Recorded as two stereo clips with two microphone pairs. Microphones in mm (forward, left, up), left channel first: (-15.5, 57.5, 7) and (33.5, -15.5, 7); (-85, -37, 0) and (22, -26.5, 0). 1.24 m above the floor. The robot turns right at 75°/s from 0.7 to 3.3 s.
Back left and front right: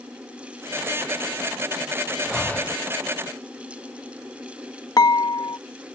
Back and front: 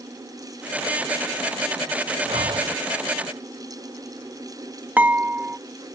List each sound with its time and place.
2.3 s breathing: 35° left; by 2.8 s 70° left
5.0 s dishes clattering: 80° left